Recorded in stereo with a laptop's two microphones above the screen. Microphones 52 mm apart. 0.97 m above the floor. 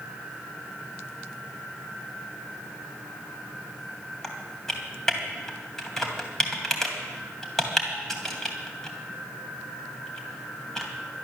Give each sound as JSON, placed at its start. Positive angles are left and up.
{"t": 4.2, "sound": "typing on a keyboard", "side_deg": 5, "distance_m": 2.5}